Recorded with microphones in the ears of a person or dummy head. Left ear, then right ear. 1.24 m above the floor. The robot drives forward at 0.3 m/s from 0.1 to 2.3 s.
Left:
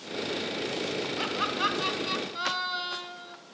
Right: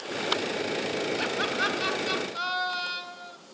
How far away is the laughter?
About 2.5 m.